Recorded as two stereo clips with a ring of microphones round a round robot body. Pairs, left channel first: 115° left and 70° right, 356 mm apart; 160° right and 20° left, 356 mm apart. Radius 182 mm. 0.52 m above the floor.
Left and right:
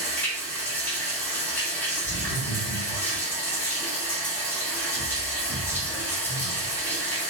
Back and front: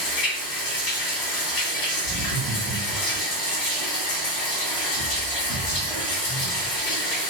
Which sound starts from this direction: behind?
Running water, at 0.0 s.